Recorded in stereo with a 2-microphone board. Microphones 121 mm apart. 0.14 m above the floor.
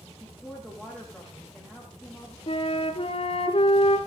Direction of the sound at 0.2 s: 5° right (ahead or behind).